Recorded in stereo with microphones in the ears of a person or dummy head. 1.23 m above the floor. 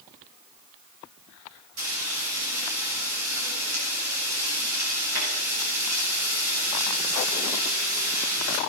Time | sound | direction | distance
1.8 | frying | 90° right | 7.5 m